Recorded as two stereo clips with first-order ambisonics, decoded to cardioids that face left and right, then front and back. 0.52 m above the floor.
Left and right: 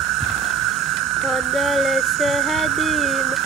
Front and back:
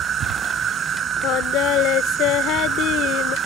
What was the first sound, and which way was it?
An insect, 120° right.